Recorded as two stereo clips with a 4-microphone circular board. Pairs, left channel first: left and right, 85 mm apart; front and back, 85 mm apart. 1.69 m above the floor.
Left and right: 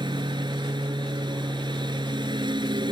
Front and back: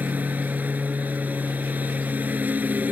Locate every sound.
0.0 s a lawn mower: 110° right